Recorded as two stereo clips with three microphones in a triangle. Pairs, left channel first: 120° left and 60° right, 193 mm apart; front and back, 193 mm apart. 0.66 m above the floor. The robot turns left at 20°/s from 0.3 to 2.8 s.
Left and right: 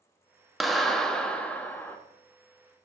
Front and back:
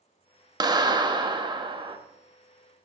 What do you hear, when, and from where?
0.6 s a clap: 150° right, 0.8 m; by 2.0 s 175° right, 0.8 m